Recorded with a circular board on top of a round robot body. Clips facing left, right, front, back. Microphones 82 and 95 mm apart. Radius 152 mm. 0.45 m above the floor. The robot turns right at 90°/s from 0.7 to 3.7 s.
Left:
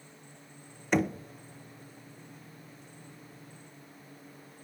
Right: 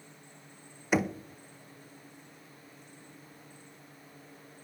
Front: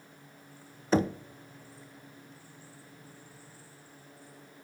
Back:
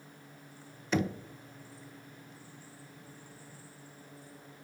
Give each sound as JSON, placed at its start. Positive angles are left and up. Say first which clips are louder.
{"t": 0.9, "sound": "knocking", "louder": "left 1 dB, front 5 dB", "azimuth_deg": -10, "distance_m": 0.6}